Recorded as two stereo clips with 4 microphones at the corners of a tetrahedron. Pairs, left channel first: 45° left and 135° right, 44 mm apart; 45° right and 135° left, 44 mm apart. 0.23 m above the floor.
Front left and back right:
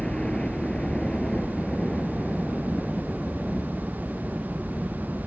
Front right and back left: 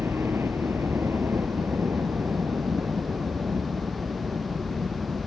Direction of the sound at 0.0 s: 115° left.